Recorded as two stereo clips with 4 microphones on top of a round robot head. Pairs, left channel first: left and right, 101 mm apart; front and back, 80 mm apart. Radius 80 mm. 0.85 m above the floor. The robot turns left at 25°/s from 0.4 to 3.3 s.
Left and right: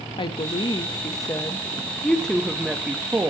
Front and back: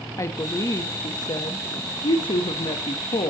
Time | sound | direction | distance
0.2 | a woman speaking | 50° left | 0.9 m